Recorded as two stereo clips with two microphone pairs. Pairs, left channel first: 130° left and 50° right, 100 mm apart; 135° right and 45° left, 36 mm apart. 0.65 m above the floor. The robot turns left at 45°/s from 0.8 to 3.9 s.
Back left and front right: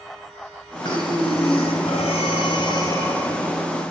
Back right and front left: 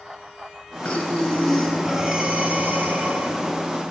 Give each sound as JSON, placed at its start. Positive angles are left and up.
{"t": 0.8, "sound": "breathing", "azimuth_deg": 170, "distance_m": 2.5}